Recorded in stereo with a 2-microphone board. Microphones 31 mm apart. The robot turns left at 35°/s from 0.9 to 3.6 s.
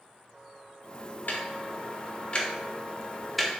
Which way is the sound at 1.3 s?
65° left (ahead or behind).